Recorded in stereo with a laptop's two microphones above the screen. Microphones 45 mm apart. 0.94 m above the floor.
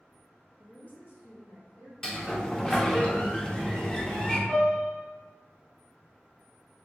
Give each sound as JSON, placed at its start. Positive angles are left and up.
{"t": 0.6, "sound": "a woman speaking", "side_deg": 15, "distance_m": 1.0}
{"t": 2.0, "sound": "a sliding door", "side_deg": 15, "distance_m": 0.6}
{"t": 4.5, "sound": "a piano", "side_deg": 50, "distance_m": 1.8}